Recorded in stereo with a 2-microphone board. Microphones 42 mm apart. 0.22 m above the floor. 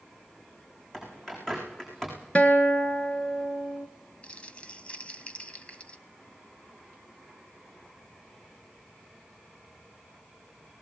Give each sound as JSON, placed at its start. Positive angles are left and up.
{"t": 0.9, "sound": "a bird", "side_deg": 15, "distance_m": 8.0}
{"t": 2.4, "sound": "a guitar", "side_deg": 30, "distance_m": 1.7}
{"t": 4.2, "sound": "crumpling", "side_deg": 30, "distance_m": 1.3}